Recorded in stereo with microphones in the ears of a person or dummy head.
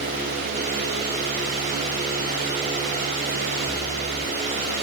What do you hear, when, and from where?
Only background noise.